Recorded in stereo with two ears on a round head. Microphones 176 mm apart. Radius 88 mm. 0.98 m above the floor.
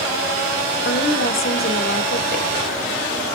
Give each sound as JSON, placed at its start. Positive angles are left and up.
{"t": 0.8, "sound": "a woman speaking", "side_deg": 50, "distance_m": 2.5}